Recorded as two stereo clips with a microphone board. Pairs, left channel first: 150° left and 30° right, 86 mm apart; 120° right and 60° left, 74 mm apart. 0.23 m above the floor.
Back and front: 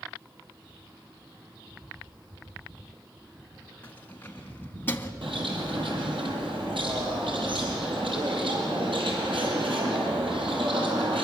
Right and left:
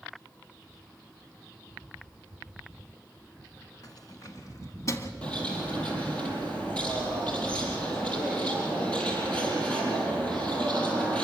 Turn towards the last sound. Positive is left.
turn(degrees=-45)